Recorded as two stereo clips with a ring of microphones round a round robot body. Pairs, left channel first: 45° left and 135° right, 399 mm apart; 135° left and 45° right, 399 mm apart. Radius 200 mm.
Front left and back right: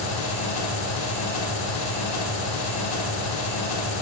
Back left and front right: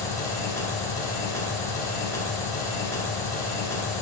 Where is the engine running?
55° left, 1.5 m.